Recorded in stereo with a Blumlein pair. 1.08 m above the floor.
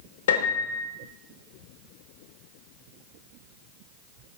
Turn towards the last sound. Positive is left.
turn(degrees=60)